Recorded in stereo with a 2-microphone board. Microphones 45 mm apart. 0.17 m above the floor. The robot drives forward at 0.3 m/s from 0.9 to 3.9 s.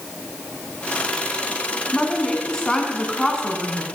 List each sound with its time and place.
1.9 s a woman speaking: 15° left (ahead or behind), 1.5 m; by 3.9 s 10° left (ahead or behind), 1.8 m